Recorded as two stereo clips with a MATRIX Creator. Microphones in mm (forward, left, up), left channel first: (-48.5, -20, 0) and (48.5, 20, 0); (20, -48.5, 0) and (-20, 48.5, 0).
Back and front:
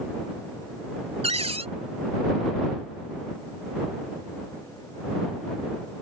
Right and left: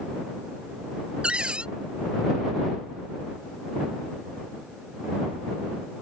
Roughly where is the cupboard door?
Ahead left.